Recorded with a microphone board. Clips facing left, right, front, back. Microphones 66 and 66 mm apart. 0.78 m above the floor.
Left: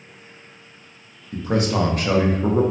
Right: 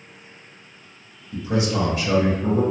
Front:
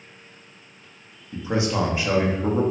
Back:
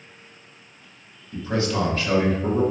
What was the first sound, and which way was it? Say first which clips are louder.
A man speaking: left 2 dB, even; 65° left.